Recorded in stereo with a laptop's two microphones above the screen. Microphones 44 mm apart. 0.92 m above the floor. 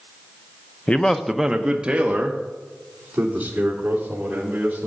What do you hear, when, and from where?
0.9 s a man speaking: 30° left (ahead or behind), 0.6 m; by 4.9 s 35° right (ahead or behind), 4.5 m